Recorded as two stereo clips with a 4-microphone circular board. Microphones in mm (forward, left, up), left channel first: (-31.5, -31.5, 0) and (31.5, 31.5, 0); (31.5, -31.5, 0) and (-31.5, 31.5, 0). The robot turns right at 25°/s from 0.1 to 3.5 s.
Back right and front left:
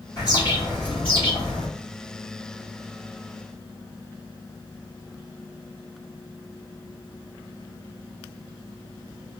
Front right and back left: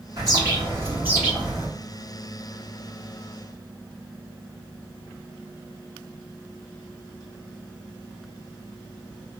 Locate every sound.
0.2 s a bird: straight behind, 1.8 m; by 1.7 s 140° right, 1.8 m